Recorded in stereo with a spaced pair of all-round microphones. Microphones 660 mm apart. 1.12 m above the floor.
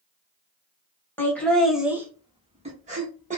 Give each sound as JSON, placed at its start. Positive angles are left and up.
{"t": 1.2, "sound": "laughter", "side_deg": 5, "distance_m": 1.0}